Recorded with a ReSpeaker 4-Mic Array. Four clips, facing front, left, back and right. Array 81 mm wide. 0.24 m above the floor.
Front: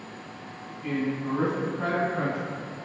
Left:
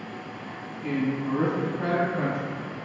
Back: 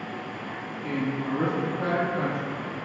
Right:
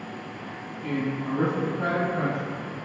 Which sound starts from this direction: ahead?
A man speaking, at 0.8 s.